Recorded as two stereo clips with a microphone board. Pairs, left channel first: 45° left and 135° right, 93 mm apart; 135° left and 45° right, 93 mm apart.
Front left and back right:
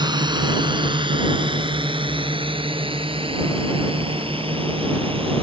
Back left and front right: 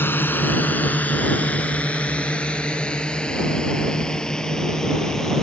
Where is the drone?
160° right; by 5.4 s 140° right.